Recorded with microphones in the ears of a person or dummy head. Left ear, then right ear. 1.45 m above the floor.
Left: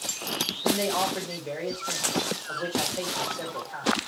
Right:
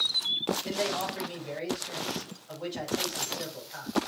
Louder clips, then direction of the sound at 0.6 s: Left 5 dB; 55° left (ahead or behind).